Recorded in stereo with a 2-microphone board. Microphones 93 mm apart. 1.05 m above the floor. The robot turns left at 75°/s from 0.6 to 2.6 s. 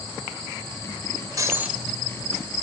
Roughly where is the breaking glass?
Behind right.